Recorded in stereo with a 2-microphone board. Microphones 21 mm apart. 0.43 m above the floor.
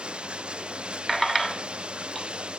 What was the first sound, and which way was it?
Running water, 60° right (ahead or behind).